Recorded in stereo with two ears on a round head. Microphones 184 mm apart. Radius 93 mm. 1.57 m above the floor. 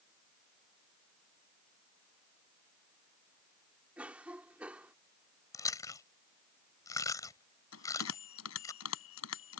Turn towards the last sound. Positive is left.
turn(degrees=85)